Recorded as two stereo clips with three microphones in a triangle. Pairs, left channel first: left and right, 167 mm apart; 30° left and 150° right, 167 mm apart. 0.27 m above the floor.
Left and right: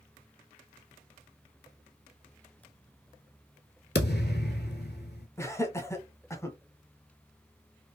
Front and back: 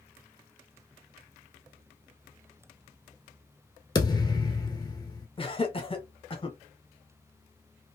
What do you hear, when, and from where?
4.0 s a thud: 95° left, 0.9 m
5.4 s laughter: 30° left, 1.1 m